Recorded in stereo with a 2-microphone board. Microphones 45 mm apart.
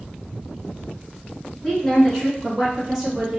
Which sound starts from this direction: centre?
A woman speaking, at 1.6 s.